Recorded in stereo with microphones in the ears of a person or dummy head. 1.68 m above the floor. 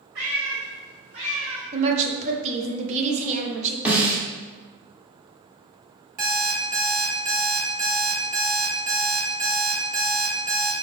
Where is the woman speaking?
35° right (ahead or behind), 0.8 m.